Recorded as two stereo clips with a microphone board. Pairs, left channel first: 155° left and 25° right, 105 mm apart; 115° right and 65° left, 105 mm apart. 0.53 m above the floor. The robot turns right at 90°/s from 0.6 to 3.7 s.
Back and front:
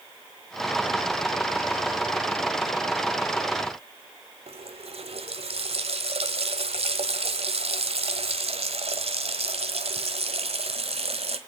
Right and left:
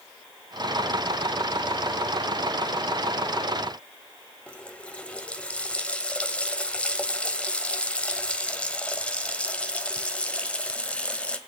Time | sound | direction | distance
4.5 | a running tap | 35° right | 1.4 m